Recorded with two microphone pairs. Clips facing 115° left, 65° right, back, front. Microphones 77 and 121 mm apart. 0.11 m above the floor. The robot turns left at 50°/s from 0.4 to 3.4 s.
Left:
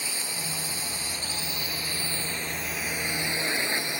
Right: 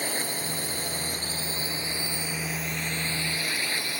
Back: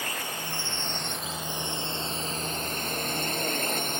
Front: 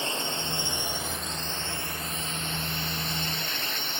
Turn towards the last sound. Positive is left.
turn(degrees=175)